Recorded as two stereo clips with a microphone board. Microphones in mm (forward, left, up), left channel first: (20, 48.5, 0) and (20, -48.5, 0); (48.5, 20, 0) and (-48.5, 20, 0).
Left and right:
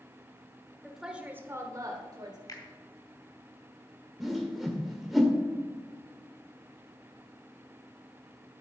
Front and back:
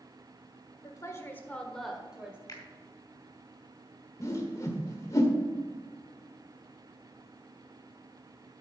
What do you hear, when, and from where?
0.8 s a woman speaking: straight ahead, 1.5 m; by 2.4 s 105° right, 1.9 m
2.5 s a finger snap: 45° left, 2.5 m
4.2 s a whoosh: 5° right, 1.5 m